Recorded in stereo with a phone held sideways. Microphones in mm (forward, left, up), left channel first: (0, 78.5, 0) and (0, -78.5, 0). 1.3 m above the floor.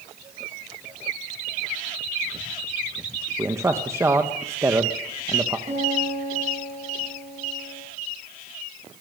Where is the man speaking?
20° right (ahead or behind), 1.5 m.